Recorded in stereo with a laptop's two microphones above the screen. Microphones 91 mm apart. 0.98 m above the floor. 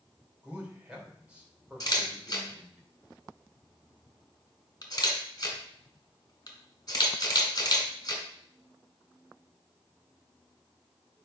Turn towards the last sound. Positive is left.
turn(degrees=40)  # may be behind; listen again after turning